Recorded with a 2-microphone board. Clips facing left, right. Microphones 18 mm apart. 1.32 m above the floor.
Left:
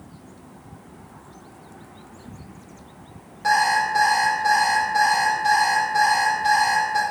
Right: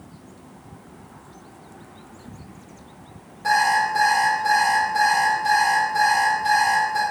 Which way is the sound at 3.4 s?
25° left (ahead or behind).